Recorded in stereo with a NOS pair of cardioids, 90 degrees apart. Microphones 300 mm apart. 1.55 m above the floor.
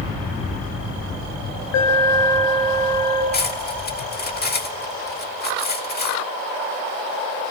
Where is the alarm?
65° left, 5.5 m.